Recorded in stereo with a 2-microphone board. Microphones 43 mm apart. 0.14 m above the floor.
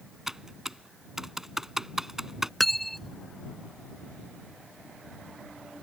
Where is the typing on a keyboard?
10° right (ahead or behind).